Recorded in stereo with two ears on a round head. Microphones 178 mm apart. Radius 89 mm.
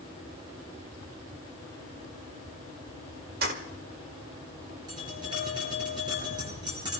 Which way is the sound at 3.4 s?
50° right (ahead or behind).